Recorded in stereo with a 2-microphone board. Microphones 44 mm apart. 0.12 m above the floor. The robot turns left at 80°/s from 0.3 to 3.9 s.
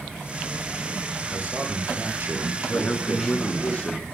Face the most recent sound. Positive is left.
turn(degrees=30)